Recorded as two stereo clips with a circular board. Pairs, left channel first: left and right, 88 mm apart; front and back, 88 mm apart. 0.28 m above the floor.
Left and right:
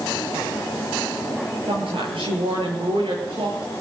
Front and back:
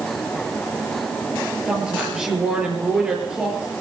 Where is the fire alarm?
I don't hear a fire alarm.